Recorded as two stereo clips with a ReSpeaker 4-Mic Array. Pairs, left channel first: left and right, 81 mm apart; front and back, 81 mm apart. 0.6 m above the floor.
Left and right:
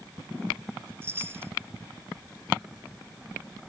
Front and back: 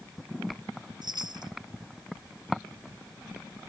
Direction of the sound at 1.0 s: 150° right.